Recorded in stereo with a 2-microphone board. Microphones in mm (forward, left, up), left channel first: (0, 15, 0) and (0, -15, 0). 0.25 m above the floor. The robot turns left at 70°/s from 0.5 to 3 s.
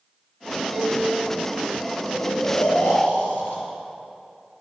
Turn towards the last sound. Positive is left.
turn(degrees=90)